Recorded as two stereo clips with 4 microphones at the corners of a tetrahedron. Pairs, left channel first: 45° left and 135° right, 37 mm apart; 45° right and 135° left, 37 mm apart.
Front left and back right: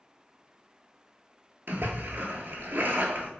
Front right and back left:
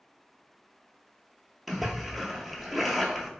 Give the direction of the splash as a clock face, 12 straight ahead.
5 o'clock.